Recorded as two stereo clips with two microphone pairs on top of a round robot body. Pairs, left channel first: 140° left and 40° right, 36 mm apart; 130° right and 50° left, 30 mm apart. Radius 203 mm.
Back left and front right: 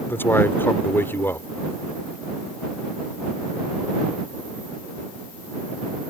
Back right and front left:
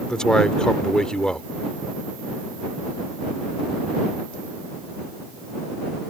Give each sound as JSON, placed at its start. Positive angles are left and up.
{"t": 0.1, "sound": "a man speaking", "azimuth_deg": 160}